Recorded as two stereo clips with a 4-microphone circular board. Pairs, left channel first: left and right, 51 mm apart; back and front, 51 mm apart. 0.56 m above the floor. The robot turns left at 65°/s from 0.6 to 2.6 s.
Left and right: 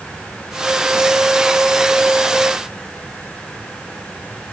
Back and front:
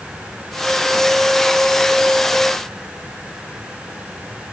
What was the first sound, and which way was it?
Only background noise.